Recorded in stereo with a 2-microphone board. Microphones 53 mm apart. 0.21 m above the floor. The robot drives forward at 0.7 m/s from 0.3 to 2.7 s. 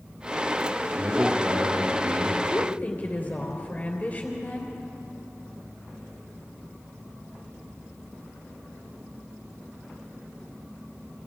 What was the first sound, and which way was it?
A man speaking, 35° right (ahead or behind).